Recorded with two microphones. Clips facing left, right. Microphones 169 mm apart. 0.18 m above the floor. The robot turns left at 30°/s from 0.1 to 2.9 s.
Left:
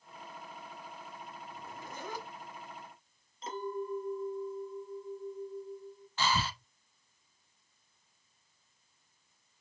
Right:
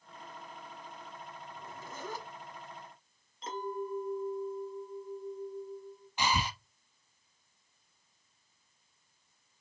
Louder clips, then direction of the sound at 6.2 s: Even; 15° right (ahead or behind).